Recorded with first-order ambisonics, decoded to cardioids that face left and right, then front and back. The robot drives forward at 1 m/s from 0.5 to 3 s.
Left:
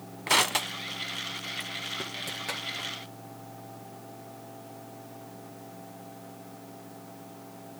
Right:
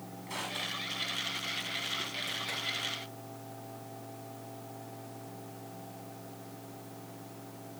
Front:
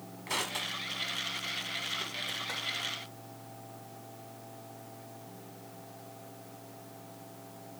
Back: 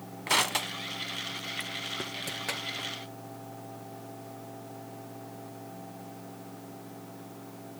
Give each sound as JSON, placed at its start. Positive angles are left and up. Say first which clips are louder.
{"t": 0.3, "sound": "crushing", "louder": "left 12 dB, back 7 dB", "azimuth_deg": 120, "distance_m": 1.0}